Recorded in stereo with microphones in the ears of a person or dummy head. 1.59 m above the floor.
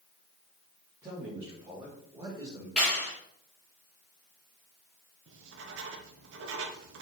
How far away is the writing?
About 0.9 m.